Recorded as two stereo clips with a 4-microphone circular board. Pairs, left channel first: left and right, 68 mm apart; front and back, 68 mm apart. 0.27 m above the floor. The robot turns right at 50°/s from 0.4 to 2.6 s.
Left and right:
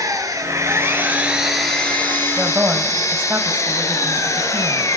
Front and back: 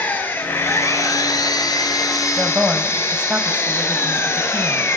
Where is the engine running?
60° right, 3 m; by 5.0 s 50° left, 3 m.